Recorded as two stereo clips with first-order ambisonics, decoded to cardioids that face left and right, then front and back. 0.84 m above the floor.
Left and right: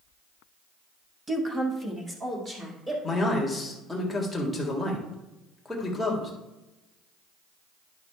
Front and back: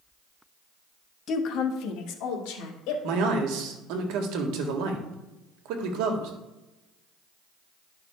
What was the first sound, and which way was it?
A woman speaking, 20° right.